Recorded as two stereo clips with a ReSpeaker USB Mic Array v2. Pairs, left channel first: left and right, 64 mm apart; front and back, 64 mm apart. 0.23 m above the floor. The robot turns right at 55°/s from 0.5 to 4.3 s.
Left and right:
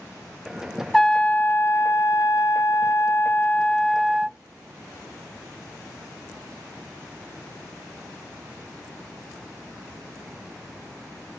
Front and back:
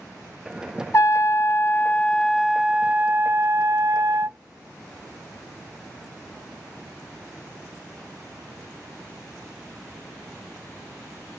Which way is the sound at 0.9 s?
5° left.